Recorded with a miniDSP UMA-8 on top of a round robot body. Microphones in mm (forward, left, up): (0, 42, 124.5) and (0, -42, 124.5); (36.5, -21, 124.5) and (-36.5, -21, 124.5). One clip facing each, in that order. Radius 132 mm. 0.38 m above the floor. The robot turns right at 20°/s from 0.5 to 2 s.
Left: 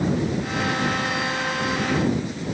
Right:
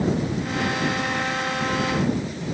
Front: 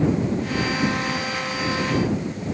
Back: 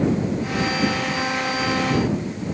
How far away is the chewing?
I don't hear chewing.